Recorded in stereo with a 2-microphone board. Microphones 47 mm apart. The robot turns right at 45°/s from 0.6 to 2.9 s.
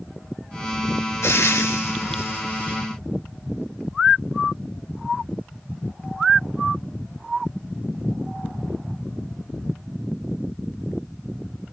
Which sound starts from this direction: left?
Frying, at 1.2 s.